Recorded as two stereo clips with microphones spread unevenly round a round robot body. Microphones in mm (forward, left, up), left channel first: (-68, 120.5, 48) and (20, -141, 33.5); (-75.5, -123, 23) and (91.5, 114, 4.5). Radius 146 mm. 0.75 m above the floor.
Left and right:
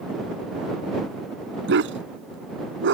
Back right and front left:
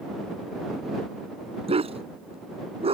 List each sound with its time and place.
1.7 s a dog barking: 15° right